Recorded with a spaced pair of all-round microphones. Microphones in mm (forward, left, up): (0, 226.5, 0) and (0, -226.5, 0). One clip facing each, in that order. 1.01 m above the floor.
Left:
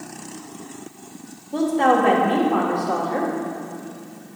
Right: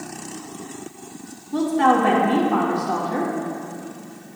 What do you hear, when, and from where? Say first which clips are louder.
1.5 s a woman speaking: even; 25° right (ahead or behind), 1.7 m